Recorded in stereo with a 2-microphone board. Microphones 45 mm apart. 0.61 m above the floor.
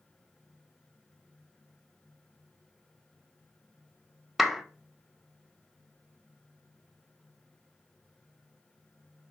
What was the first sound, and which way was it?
A clap, 5° right (ahead or behind).